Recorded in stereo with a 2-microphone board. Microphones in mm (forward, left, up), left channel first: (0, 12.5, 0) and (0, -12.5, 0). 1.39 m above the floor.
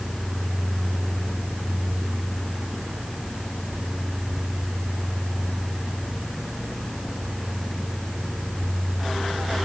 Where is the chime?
I don't hear a chime.